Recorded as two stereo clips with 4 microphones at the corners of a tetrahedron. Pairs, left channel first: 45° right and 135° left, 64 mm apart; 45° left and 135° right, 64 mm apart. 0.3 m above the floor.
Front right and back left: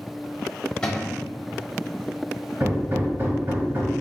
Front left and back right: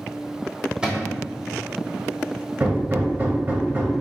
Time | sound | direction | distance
0.8 | a cupboard door | 90° right | 1.0 m
2.6 | hammering | straight behind | 0.7 m